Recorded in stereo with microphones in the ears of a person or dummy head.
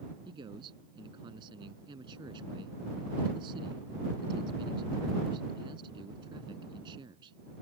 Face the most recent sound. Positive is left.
turn(degrees=-30)  # may be behind; listen again after turning